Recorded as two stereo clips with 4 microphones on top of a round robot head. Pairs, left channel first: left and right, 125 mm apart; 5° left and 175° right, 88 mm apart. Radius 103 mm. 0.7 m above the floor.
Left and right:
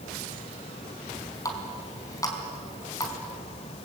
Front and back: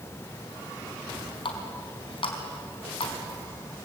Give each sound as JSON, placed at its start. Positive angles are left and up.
{"t": 1.4, "sound": "a running tap", "azimuth_deg": 25, "distance_m": 4.5}